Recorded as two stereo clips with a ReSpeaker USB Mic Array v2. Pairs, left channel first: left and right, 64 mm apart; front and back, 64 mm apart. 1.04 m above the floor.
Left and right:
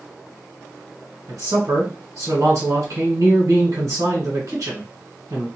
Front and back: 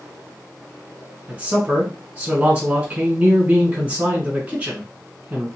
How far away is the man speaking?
About 1.5 m.